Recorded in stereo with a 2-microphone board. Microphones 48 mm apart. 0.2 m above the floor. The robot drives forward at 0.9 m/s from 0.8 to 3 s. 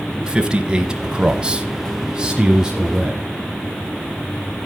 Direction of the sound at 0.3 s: 15° right (ahead or behind).